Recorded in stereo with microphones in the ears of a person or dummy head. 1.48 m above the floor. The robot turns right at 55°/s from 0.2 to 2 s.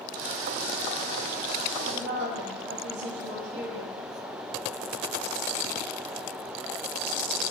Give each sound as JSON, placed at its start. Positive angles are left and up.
{"t": 1.8, "sound": "a woman speaking", "side_deg": -70, "distance_m": 0.9}